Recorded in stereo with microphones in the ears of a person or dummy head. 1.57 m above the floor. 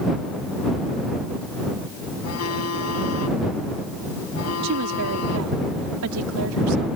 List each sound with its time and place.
2.2 s a phone buzzing: 90° left
4.6 s a woman speaking: 75° right (ahead or behind)